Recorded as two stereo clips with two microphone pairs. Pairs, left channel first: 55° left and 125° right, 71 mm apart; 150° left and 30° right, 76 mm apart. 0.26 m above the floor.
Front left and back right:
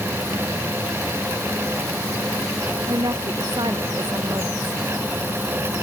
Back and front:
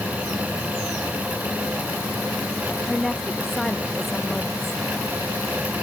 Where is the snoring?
I don't hear snoring.